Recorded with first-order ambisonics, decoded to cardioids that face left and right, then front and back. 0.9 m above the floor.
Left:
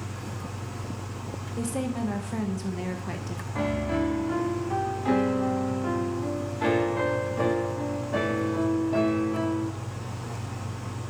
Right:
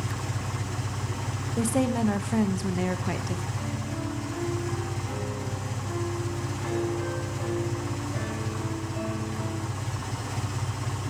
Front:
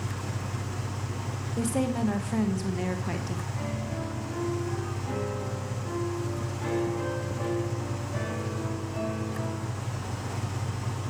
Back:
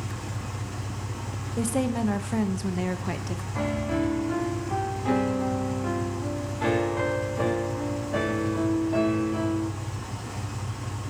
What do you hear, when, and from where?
0.0 s an engine running: 95° right, 2.5 m
1.6 s a woman speaking: 115° right, 0.8 m
3.5 s a piano: 130° left, 1.1 m